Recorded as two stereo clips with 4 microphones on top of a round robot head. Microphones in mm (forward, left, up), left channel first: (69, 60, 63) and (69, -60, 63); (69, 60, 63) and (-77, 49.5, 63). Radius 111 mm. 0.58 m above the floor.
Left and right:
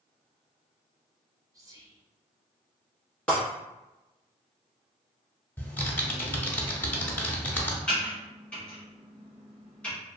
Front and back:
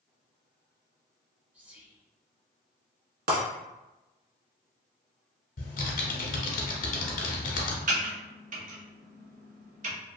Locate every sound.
1.5 s whispering: 105° right, 0.8 m
3.3 s breaking glass: 175° left, 1.0 m
5.6 s typing on a keyboard: 15° left, 0.6 m
7.9 s typing on a keyboard: 170° left, 0.9 m